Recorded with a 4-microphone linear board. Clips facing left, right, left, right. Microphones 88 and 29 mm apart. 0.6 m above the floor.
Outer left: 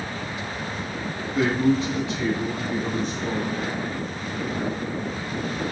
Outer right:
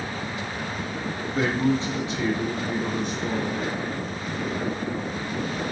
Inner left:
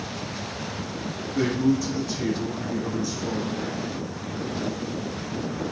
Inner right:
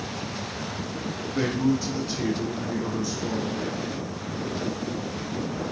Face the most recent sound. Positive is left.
turn(degrees=-5)  # may be behind; listen again after turning